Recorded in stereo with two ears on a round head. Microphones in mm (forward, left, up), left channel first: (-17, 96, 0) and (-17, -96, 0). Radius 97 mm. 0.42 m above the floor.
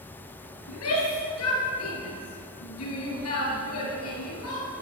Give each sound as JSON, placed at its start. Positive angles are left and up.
{"t": 0.7, "sound": "a shout", "side_deg": 80, "distance_m": 6.5}